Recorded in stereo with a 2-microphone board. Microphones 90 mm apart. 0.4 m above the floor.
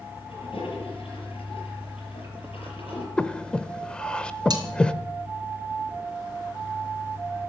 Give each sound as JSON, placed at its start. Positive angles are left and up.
{"t": 0.3, "sound": "a toilet flushing", "side_deg": 85, "distance_m": 6.5}
{"t": 3.2, "sound": "breathing", "side_deg": 10, "distance_m": 0.9}
{"t": 4.5, "sound": "cutlery clinking", "side_deg": -45, "distance_m": 2.5}